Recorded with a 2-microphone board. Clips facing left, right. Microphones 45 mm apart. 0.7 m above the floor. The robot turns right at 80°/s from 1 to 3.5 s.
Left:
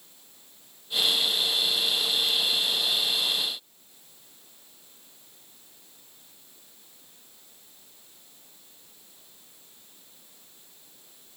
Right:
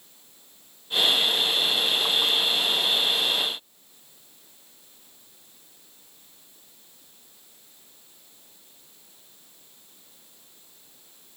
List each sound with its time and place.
Only background noise.